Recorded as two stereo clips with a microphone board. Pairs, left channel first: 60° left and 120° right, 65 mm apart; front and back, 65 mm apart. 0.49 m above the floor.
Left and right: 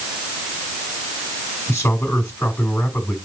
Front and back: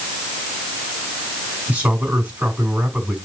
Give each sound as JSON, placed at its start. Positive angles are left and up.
{"t": 1.7, "sound": "a man speaking", "azimuth_deg": 110, "distance_m": 3.5}